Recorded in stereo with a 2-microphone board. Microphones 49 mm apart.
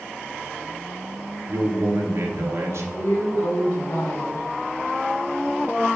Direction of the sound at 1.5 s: 70° right (ahead or behind).